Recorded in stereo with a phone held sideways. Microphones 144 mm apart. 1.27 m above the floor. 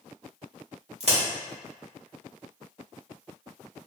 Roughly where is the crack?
Right.